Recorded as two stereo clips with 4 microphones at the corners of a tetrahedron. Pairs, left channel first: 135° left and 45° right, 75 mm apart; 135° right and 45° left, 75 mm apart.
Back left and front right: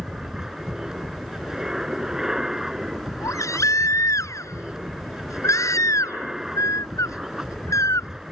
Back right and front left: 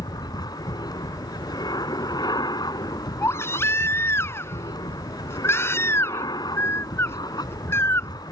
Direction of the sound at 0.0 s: 125° right.